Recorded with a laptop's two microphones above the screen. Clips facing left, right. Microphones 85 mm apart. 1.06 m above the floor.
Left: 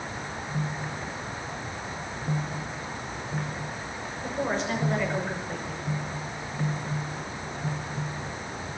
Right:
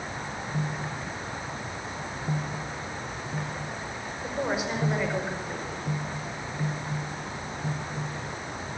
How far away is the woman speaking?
About 5 m.